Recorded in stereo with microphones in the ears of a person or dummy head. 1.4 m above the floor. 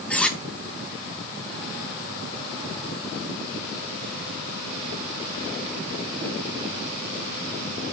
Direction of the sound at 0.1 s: 5° left (ahead or behind).